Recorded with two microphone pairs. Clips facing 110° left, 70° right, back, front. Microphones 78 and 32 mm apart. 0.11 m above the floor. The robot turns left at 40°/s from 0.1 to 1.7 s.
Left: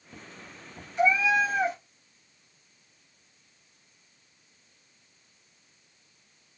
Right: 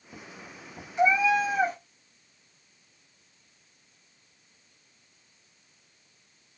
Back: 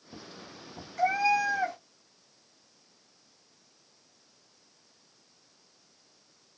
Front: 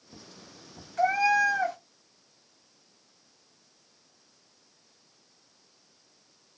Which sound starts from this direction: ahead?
A cat meowing, at 1.0 s.